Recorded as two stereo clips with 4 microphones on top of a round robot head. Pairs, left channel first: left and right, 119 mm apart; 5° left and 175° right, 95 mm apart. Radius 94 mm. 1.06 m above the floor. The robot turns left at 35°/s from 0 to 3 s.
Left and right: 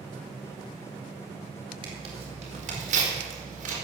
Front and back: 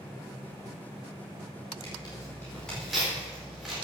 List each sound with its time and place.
1.8 s tearing paper: 45° right, 4 m; by 3.8 s 90° right, 4 m